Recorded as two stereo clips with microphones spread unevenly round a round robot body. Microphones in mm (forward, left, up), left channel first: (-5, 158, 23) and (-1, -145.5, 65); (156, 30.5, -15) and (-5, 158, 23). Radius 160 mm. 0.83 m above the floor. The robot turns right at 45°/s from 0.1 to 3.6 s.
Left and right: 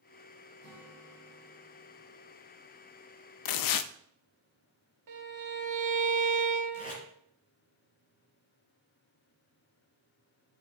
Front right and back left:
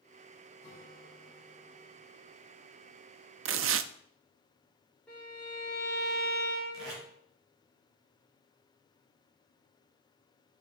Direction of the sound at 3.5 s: 110° left.